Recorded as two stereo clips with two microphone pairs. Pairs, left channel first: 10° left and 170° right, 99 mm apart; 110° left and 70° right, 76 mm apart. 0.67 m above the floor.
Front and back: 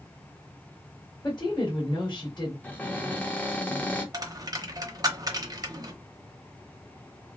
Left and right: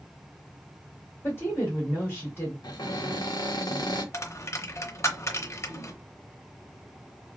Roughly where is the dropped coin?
Behind left.